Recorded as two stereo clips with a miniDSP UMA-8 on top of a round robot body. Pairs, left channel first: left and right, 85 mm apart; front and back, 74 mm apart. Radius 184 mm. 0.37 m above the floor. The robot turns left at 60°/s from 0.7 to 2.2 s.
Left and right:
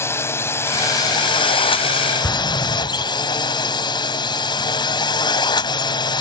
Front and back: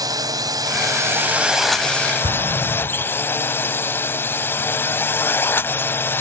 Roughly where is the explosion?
Behind.